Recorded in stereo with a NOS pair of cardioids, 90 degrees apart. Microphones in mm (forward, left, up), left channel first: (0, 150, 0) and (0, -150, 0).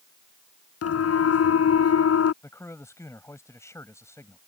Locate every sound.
0.8 s a siren: 50° left
2.4 s a man speaking: 10° left